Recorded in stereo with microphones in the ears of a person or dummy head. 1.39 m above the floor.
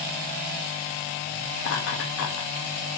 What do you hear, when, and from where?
1.6 s laughter: 70° left (ahead or behind), 1.8 m